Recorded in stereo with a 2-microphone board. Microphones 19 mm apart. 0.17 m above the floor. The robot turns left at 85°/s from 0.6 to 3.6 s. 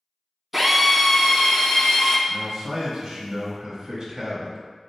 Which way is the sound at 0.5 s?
160° right.